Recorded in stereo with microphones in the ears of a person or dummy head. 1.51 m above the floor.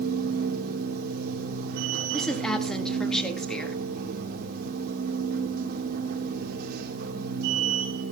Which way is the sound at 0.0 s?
55° right (ahead or behind).